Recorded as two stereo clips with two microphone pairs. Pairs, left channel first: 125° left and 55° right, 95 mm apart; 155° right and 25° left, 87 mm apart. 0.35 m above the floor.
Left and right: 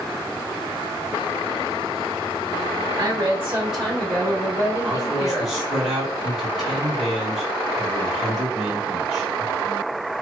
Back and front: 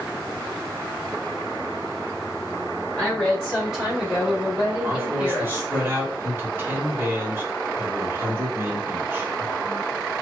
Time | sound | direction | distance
2.9 | a woman speaking | 65° right | 1.1 m
4.8 | a man speaking | 20° left | 0.9 m